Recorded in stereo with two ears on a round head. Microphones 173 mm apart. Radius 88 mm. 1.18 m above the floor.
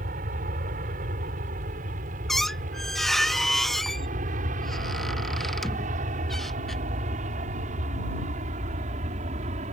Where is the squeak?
Centre (ahead or behind).